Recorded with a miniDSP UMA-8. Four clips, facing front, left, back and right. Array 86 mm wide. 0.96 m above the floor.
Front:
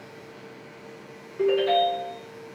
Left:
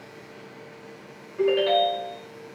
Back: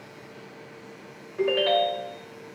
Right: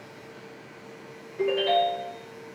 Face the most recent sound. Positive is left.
turn(degrees=160)